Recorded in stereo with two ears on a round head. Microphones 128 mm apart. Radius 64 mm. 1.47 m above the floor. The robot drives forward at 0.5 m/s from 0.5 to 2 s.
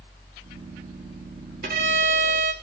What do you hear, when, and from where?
1.6 s a violin: 75° right (ahead or behind), 4 m; by 2.5 s 70° right (ahead or behind), 4.5 m